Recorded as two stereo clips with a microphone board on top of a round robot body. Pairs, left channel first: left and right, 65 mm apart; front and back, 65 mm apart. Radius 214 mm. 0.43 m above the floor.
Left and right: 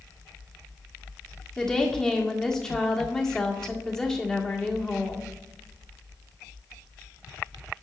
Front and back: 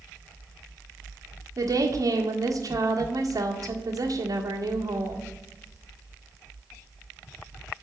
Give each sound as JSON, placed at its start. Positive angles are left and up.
{"t": 1.6, "sound": "a woman speaking", "azimuth_deg": 170, "distance_m": 1.8}